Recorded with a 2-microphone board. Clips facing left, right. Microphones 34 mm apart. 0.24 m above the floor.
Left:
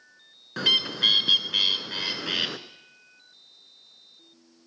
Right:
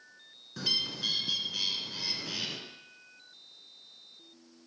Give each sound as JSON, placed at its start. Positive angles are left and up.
{"t": 0.6, "sound": "a bird", "side_deg": 60, "distance_m": 0.8}